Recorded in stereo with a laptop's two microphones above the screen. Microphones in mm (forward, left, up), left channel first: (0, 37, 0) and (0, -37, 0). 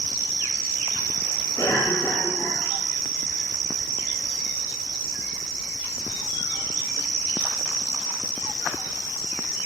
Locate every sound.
1.6 s a cough: 60° left (ahead or behind), 5.5 m